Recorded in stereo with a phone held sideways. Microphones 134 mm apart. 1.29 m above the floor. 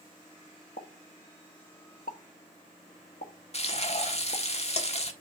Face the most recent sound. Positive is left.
turn(degrees=50)  # may be behind; listen again after turning